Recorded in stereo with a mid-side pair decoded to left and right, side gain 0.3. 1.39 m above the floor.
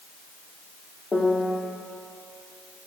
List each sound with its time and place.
1.1 s a piano: 45° left, 1.7 m